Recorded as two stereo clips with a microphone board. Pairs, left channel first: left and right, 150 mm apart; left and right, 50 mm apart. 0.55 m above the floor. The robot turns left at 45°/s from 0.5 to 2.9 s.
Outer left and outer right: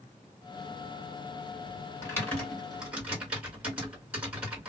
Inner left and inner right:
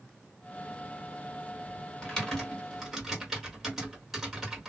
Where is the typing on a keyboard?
15° left (ahead or behind), 1.7 m; by 4.7 s 10° right (ahead or behind), 1.7 m.